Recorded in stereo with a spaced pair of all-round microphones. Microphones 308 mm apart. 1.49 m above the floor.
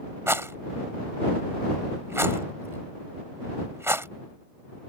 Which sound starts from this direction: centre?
A rattle, at 0.3 s.